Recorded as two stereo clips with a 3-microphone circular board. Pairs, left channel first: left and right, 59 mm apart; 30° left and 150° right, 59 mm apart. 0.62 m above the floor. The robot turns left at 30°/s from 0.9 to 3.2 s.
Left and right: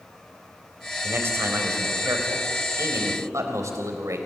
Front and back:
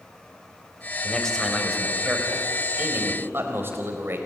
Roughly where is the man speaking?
Ahead right.